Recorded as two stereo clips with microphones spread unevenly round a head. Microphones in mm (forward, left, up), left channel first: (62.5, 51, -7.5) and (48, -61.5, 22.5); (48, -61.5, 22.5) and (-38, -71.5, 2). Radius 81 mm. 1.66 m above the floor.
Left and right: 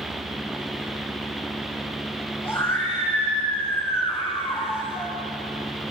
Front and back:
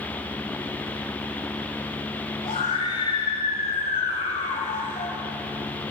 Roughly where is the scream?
Ahead.